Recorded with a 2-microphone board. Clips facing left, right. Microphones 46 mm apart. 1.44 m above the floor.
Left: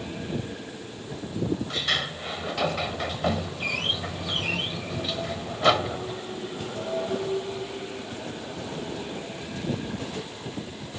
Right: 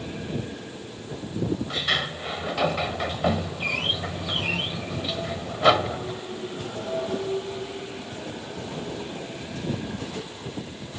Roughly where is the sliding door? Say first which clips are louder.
Right 2 dB; centre.